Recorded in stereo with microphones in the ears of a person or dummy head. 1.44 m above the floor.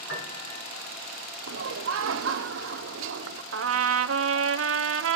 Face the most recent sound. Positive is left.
turn(degrees=-65)  # may be behind; listen again after turning